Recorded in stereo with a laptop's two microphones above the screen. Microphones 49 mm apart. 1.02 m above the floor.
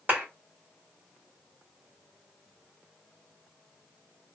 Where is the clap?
40° right (ahead or behind), 1.6 m.